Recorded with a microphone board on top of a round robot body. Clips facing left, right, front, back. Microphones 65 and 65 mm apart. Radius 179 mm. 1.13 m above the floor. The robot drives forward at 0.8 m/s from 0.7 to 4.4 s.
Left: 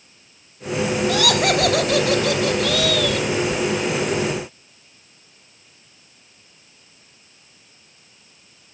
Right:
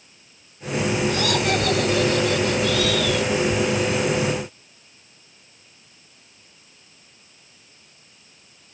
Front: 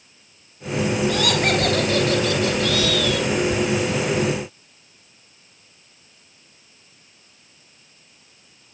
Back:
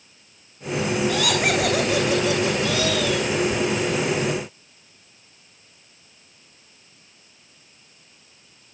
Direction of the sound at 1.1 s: 90° left.